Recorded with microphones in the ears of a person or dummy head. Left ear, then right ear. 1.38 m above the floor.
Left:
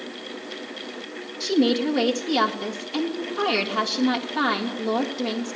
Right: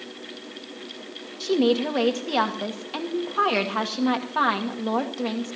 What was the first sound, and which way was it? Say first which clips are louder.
A woman speaking: even; 40° right (ahead or behind).